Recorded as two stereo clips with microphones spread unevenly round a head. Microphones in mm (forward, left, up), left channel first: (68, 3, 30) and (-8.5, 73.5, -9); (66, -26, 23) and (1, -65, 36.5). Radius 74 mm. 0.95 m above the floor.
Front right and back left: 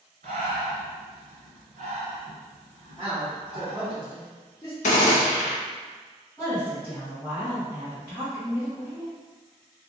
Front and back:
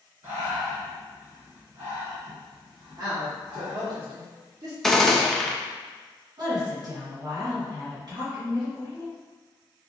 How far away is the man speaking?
About 1.2 m.